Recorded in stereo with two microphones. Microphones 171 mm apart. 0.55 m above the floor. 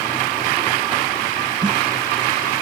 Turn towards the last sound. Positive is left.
turn(degrees=-25)  # may be behind; listen again after turning